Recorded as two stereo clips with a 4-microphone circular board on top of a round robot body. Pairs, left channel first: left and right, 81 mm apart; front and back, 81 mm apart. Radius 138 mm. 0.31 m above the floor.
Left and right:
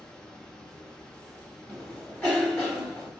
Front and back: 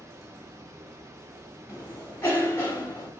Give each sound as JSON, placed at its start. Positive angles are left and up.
{"t": 0.0, "sound": "running water", "azimuth_deg": 165, "distance_m": 0.8}
{"t": 1.7, "sound": "a cough", "azimuth_deg": 30, "distance_m": 1.6}